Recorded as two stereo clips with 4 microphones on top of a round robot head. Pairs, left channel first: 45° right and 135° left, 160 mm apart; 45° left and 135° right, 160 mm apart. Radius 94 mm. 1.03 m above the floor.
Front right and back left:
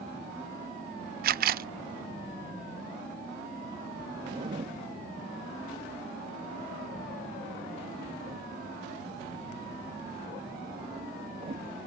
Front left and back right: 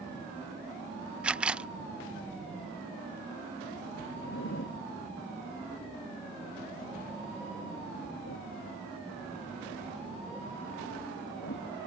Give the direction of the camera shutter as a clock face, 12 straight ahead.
7 o'clock.